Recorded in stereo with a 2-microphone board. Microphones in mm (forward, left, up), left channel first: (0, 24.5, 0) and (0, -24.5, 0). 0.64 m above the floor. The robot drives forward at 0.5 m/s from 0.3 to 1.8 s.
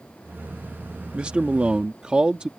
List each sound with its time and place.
1.1 s a man speaking: 20° right (ahead or behind)